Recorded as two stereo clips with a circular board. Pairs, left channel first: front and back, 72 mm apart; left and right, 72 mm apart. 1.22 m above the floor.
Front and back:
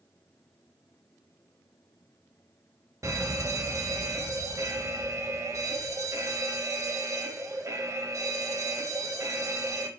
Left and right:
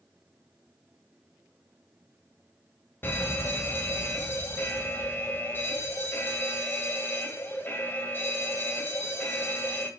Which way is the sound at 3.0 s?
145° left.